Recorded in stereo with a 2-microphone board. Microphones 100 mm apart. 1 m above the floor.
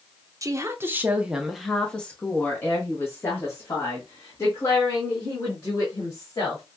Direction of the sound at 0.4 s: 30° right (ahead or behind).